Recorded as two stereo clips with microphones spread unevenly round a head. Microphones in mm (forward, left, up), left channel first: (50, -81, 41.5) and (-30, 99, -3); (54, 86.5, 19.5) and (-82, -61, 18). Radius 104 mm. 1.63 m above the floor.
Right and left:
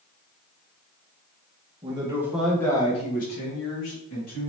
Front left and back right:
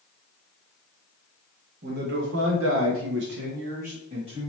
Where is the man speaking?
175° right, 1.1 m; by 4.5 s 65° right, 1.6 m.